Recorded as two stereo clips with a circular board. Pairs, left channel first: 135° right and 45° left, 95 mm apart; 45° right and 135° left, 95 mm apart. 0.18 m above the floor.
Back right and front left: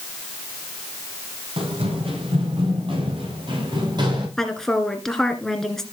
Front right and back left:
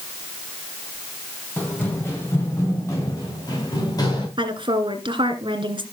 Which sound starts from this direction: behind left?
A woman speaking, at 4.4 s.